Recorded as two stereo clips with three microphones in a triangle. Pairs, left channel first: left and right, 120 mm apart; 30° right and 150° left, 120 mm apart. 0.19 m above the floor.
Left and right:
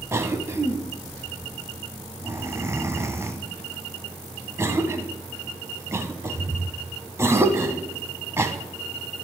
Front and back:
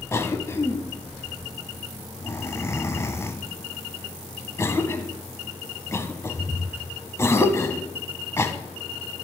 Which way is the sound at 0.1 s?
60° right.